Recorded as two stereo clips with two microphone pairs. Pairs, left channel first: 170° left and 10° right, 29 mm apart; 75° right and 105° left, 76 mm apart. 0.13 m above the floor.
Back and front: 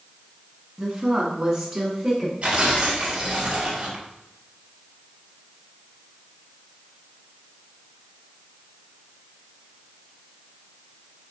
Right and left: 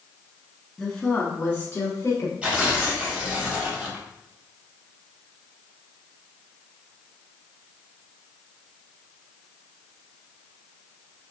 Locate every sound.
0.8 s a woman speaking: 5° right, 1.1 m; by 2.3 s 70° right, 1.3 m
2.4 s tearing paper: 30° left, 1.8 m